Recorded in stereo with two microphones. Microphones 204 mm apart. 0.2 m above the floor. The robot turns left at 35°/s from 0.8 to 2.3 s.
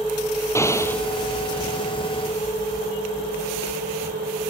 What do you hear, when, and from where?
0.6 s an explosion: 15° left (ahead or behind); by 1.0 s 5° left (ahead or behind)